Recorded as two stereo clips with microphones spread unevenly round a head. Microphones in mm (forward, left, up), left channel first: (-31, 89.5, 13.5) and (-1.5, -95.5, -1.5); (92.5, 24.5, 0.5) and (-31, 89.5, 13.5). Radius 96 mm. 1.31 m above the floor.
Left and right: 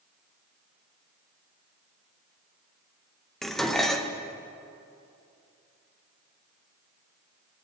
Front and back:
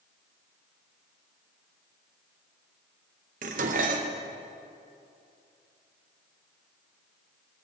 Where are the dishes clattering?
175° right, 0.6 m.